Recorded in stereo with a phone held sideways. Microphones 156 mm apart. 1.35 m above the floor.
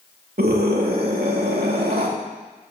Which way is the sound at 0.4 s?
80° right.